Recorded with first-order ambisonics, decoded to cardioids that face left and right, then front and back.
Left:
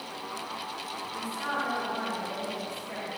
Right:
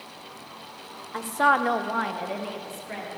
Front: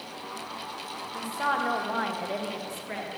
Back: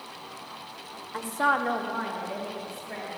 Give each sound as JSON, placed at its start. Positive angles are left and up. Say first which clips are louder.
{"t": 1.1, "sound": "a woman speaking", "louder": "right 12 dB, back 3 dB", "azimuth_deg": -120, "distance_m": 1.2}